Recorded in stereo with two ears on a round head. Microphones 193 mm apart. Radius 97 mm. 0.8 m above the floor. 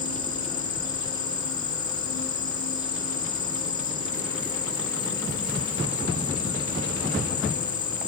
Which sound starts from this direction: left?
An insect, at 0.0 s.